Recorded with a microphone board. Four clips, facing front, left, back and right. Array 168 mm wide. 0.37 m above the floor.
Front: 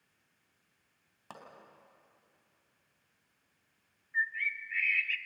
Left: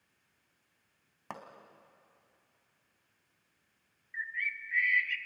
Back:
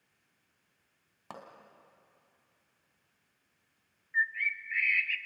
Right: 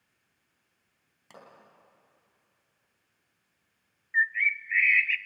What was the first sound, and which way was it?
A pop, 105° left.